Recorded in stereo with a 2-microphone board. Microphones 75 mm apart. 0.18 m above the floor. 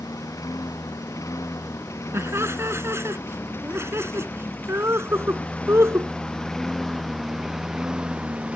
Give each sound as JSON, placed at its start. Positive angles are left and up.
{"t": 0.0, "sound": "a lawn mower", "side_deg": 50}
{"t": 2.1, "sound": "laughter", "side_deg": -35}